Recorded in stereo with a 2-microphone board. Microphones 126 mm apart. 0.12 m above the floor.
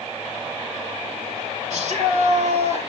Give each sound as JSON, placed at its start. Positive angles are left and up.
{"t": 1.7, "sound": "a shout", "side_deg": -65, "distance_m": 3.5}